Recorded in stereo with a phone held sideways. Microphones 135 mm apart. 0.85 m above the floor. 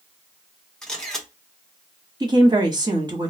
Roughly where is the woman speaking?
Right.